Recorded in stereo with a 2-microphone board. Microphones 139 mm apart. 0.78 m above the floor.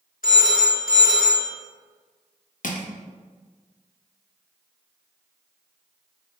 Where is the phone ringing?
80° left, 1.0 m.